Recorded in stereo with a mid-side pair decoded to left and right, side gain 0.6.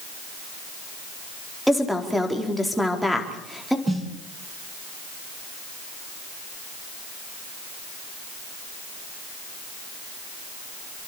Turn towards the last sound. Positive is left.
turn(degrees=-10)